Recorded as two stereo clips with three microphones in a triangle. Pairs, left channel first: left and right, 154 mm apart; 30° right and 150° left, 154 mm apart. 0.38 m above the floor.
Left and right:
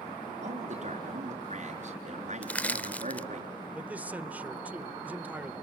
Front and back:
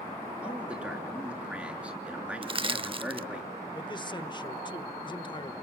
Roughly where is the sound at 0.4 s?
Behind right.